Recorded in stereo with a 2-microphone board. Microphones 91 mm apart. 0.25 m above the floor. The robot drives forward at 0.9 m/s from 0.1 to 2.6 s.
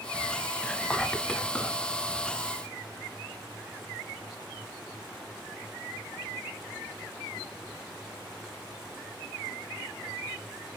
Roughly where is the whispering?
Centre.